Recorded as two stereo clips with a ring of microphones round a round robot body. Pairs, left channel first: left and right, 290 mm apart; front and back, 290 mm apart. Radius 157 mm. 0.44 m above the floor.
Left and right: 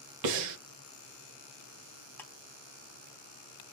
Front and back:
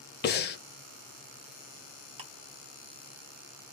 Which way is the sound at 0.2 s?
60° right.